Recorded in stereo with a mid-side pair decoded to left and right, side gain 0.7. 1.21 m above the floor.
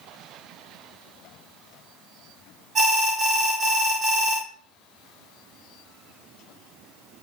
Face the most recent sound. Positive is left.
turn(degrees=-35)